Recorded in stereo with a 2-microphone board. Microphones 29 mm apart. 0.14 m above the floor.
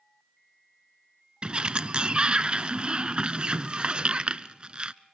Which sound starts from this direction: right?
A sliding door, at 1.4 s.